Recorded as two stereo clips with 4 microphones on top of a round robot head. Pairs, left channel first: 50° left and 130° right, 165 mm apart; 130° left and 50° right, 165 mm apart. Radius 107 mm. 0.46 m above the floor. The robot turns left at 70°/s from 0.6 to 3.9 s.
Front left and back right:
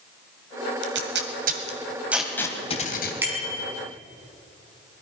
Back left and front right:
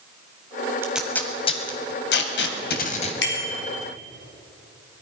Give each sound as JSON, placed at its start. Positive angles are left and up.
{"t": 0.8, "sound": "tape being pulled", "azimuth_deg": -125, "distance_m": 1.5}
{"t": 3.2, "sound": "a bicycle bell", "azimuth_deg": 150, "distance_m": 3.0}